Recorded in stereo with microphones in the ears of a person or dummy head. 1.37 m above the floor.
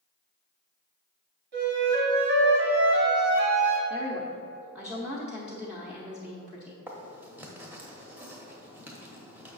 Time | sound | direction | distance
1.5 | a flute | 60° right (ahead or behind) | 1.5 m
3.9 | a woman speaking | 5° right (ahead or behind) | 0.9 m
6.9 | writing | 10° right (ahead or behind) | 1.1 m